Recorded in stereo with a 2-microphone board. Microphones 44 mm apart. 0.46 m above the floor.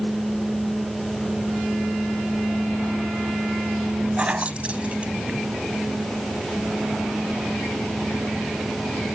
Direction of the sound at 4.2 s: 30° right (ahead or behind).